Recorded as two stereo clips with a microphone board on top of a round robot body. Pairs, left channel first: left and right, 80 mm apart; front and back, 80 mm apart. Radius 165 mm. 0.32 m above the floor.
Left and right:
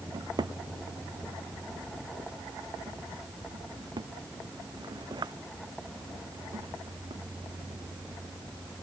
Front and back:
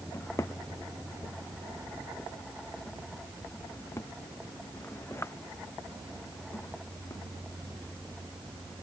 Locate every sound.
0.1 s a drawer: 60° right